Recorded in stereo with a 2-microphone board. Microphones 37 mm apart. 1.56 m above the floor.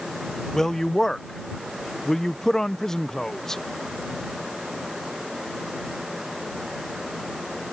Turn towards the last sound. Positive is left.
turn(degrees=15)  # may be behind; listen again after turning